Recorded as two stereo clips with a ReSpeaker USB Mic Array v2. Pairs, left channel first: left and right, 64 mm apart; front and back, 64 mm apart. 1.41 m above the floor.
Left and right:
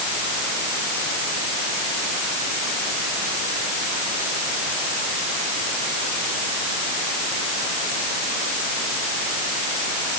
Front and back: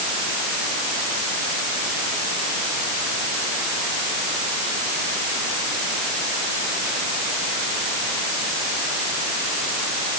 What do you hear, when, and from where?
Only background noise.